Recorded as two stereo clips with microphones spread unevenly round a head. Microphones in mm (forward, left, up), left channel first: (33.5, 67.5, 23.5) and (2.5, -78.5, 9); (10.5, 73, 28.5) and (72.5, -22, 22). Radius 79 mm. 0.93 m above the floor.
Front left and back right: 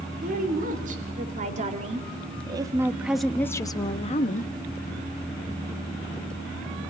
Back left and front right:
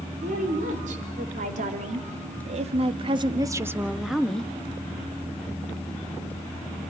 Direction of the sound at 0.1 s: 75° right.